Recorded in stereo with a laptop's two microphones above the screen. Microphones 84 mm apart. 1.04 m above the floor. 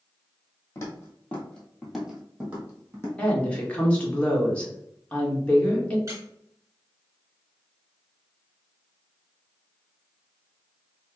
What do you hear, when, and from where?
0.8 s footsteps: 35° left (ahead or behind), 1.4 m; by 3.1 s 30° right (ahead or behind), 1.7 m
3.2 s a woman speaking: 15° left (ahead or behind), 1.3 m
6.1 s a squeak: 35° right (ahead or behind), 0.8 m